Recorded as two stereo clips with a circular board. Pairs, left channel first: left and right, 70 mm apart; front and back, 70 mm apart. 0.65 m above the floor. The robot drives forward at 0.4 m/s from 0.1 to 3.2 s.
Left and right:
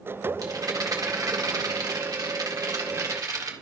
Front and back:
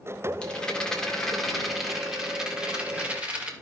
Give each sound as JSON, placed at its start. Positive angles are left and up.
{"t": 0.4, "sound": "a rattle", "azimuth_deg": -70, "distance_m": 1.9}